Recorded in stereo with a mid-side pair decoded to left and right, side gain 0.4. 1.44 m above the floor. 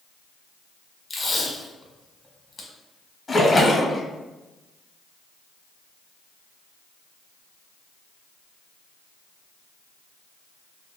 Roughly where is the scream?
No scream in this recording.